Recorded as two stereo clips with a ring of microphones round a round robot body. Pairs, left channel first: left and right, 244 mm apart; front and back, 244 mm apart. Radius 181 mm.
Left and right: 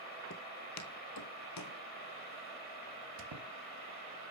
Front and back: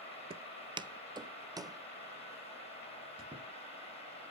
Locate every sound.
0.3 s footsteps: 120° left, 0.6 m; by 1.8 s 105° left, 1.5 m
3.2 s a squeak: 105° right, 0.9 m